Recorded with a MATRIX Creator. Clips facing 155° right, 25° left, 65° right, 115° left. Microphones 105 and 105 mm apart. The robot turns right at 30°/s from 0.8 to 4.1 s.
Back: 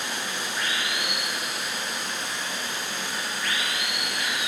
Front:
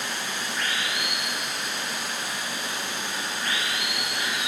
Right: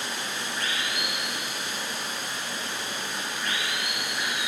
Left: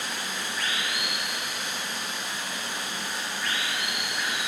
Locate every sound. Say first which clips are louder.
0.0 s running water: even, even; 100° right, 1.1 m; by 4.5 s straight ahead, 1.1 m